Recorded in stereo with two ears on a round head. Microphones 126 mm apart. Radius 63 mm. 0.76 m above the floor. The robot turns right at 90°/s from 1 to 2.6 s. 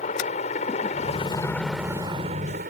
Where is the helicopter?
115° left; by 2.7 s 100° right.